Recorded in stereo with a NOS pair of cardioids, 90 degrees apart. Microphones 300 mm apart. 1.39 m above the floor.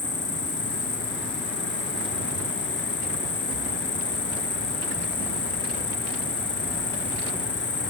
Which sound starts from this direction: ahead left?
An insect, at 0.0 s.